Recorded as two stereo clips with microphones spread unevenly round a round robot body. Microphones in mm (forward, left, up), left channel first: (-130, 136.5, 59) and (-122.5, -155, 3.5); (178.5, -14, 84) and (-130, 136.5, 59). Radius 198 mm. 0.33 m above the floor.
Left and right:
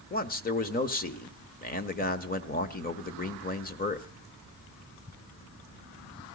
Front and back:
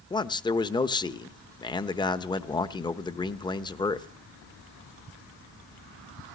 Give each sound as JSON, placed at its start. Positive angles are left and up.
{"t": 0.1, "sound": "a man speaking", "azimuth_deg": 45, "distance_m": 1.0}